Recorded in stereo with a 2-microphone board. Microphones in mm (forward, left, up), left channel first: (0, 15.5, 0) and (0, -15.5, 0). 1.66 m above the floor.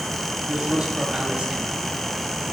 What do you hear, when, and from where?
0.5 s a man speaking: 30° right (ahead or behind), 4 m